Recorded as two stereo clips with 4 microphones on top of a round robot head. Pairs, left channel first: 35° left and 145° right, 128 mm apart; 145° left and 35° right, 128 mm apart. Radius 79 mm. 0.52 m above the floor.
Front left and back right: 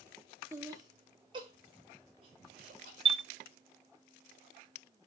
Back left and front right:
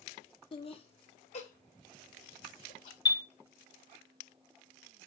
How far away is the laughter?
About 0.9 m.